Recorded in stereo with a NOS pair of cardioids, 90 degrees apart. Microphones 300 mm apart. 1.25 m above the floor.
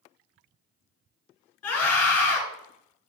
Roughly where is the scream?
Ahead left.